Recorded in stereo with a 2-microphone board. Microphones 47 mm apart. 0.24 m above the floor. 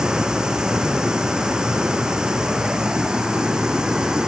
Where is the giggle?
No giggle in this recording.